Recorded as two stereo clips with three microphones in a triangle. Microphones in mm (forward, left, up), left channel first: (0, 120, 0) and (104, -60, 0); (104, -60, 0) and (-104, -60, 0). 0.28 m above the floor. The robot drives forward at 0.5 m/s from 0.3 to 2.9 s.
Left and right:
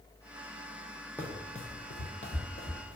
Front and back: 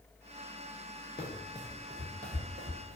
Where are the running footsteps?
40° left, 0.9 m; by 3.0 s 165° left, 1.3 m.